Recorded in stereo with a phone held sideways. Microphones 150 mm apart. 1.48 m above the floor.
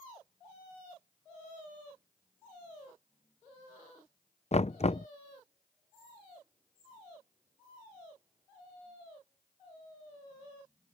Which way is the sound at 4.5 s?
45° left (ahead or behind).